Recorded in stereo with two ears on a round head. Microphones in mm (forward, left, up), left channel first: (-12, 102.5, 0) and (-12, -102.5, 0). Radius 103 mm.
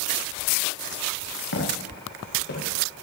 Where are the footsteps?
60° left (ahead or behind), 8 m; by 3.0 s 50° left (ahead or behind), 8 m.